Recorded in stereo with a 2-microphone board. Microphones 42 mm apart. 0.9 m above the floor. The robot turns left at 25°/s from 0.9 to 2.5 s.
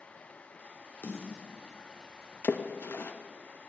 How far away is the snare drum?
About 2 m.